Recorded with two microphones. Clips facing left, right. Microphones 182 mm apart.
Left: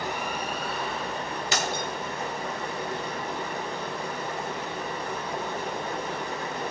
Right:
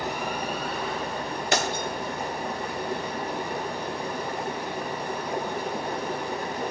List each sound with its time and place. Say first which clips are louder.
0.0 s running water: right 2 dB; 10° right (ahead or behind), 2.5 m
1.5 s breaking glass: right 4 dB; 55° right (ahead or behind), 1.0 m